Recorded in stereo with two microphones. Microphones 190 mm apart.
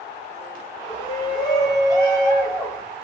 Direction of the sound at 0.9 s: 20° left (ahead or behind).